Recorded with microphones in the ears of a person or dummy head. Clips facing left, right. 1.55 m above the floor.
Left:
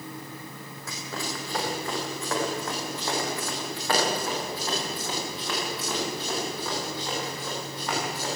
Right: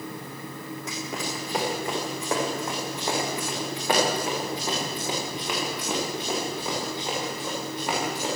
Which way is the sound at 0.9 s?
20° right (ahead or behind).